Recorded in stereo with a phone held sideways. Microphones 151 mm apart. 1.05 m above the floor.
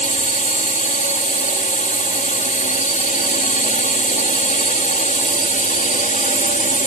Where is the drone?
55° left (ahead or behind).